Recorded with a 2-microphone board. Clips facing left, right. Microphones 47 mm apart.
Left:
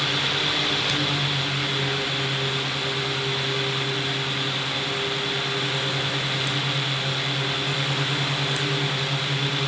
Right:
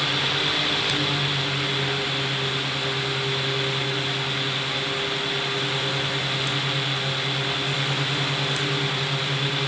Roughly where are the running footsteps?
No running footsteps in this recording.